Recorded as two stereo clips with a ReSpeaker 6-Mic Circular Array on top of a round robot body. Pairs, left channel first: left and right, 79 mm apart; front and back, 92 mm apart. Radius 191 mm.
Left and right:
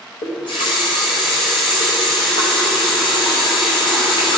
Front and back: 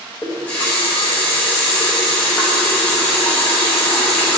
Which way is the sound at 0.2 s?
75° left.